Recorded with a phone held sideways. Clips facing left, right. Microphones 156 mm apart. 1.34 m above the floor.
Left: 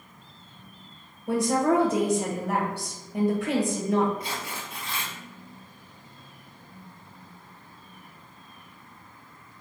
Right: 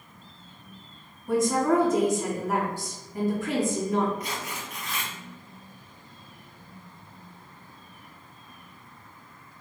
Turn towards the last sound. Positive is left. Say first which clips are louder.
# even
turn(degrees=30)  # may be behind; listen again after turning